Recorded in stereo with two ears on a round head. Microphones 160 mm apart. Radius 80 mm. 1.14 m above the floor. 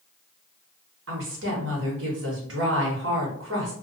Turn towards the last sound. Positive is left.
turn(degrees=-80)